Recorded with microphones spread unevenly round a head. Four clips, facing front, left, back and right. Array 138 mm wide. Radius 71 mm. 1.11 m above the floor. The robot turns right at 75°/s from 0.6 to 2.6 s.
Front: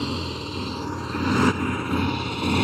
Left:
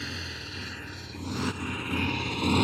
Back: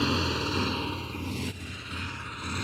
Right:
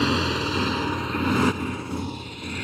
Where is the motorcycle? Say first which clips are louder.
Right 16 dB, back 1 dB; 95° right; by 2.6 s 35° left.